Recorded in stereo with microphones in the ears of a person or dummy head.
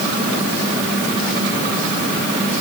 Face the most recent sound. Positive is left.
No sound to turn to.